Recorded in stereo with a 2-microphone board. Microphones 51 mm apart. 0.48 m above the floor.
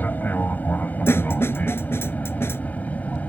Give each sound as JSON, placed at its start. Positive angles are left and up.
{"t": 0.0, "sound": "an aircraft", "side_deg": 35}
{"t": 1.1, "sound": "a snare drum", "side_deg": 55}